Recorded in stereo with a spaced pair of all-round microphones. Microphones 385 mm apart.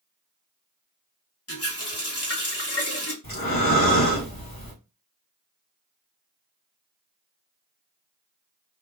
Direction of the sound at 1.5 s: 35° left (ahead or behind).